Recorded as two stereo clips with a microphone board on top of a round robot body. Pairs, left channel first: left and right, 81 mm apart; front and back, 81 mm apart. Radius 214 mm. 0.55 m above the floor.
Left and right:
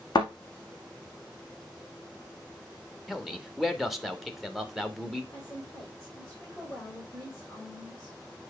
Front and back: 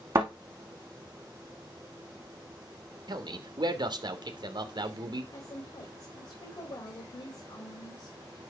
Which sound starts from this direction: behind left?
A thud, at 0.1 s.